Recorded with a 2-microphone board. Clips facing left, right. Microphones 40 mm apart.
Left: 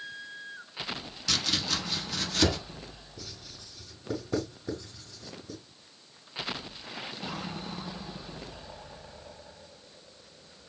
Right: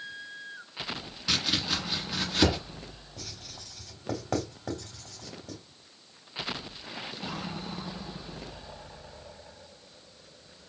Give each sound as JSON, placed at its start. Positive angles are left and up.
{"t": 1.3, "sound": "chopping", "side_deg": -20, "distance_m": 1.3}
{"t": 3.2, "sound": "writing", "side_deg": -75, "distance_m": 3.0}